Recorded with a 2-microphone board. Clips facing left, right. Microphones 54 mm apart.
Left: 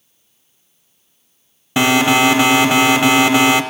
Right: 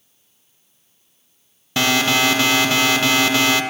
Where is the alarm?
20° left (ahead or behind), 1.0 m.